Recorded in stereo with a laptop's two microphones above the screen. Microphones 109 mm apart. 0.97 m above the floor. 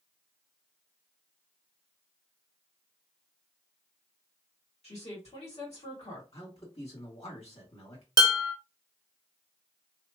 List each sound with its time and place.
4.8 s a woman speaking: 70° left (ahead or behind), 1.6 m
6.3 s a man speaking: 65° left (ahead or behind), 1.8 m
8.2 s dishes clattering: 35° right (ahead or behind), 0.9 m